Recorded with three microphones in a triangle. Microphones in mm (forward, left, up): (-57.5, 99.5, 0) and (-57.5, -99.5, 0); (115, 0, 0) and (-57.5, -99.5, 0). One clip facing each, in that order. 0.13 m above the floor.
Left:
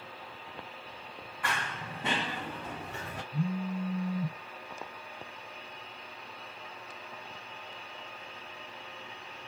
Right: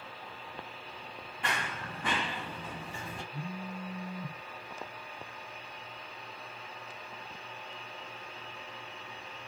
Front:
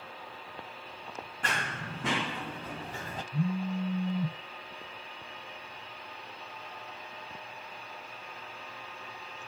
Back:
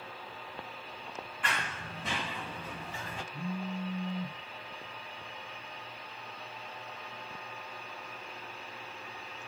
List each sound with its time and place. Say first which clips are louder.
1.4 s running footsteps: even, front 2 dB; 25° right, 0.7 m; by 3.2 s 75° left, 1.4 m
3.3 s a phone buzzing: left 11 dB, front 6 dB; 60° left, 0.6 m